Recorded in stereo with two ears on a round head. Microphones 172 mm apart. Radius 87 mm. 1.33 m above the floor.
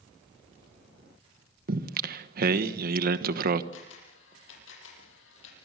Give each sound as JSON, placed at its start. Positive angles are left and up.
{"t": 1.7, "sound": "singing", "side_deg": -50, "distance_m": 1.3}
{"t": 3.7, "sound": "a camera shutter", "side_deg": 75, "distance_m": 8.0}